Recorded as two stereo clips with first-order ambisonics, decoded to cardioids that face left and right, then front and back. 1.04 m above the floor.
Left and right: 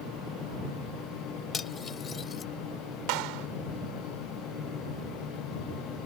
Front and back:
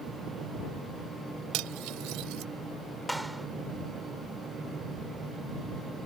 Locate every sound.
1.5 s cutlery clinking: 155° left
3.1 s a clap: 90° right